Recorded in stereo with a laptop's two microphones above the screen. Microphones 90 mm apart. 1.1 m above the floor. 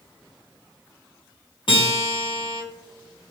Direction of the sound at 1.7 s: 60° left (ahead or behind).